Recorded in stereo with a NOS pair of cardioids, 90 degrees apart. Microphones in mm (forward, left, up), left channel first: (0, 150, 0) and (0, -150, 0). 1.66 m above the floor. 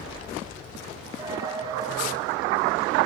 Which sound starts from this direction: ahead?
A dropped coin, at 1.2 s.